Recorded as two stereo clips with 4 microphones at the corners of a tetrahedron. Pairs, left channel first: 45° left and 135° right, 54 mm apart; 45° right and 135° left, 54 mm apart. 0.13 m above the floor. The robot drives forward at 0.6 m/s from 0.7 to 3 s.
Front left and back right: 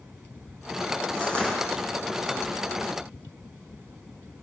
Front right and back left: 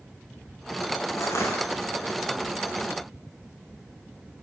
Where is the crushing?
20° right, 8.5 m.